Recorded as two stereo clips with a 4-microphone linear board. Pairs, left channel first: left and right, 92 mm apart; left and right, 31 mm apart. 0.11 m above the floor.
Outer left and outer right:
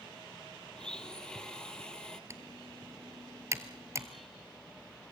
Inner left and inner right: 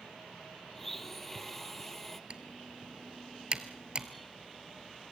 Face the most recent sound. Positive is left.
turn(degrees=-35)  # may be behind; listen again after turning